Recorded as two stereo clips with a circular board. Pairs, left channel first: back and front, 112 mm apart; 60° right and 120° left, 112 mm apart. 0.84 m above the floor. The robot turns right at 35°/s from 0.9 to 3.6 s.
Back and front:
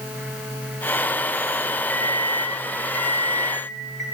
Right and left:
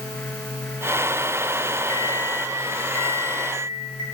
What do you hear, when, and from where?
1.9 s an alarm clock: 30° left, 3 m; by 4.0 s 90° left, 3 m